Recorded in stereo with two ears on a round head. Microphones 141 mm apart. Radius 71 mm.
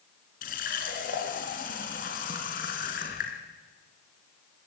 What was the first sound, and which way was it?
A running tap, 65° left (ahead or behind).